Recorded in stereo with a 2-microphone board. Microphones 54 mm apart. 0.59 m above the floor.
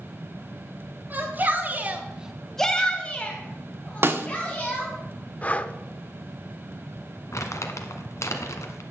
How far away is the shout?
About 1.8 m.